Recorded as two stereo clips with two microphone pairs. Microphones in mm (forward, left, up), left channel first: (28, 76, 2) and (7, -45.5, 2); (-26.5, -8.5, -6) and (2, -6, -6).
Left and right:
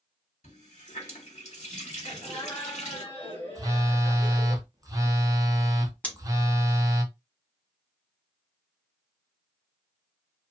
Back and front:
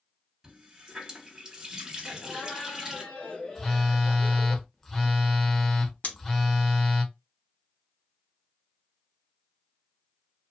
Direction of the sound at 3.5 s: 120° right.